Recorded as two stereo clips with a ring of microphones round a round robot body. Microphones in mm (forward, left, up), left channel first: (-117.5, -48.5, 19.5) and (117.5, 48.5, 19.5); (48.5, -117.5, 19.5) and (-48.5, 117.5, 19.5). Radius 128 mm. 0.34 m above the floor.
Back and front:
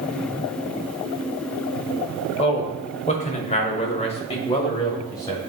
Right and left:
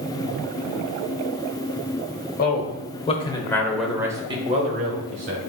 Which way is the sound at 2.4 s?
100° right.